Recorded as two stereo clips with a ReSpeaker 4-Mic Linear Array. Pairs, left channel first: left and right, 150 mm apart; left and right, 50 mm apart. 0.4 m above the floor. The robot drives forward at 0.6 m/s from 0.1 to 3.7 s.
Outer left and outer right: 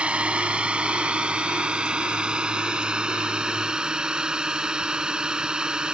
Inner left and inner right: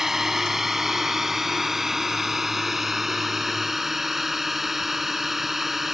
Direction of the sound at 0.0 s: 5° right (ahead or behind).